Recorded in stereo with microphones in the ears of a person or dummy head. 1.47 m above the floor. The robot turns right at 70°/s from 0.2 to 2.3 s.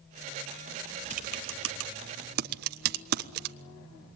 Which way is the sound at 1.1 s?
35° right (ahead or behind).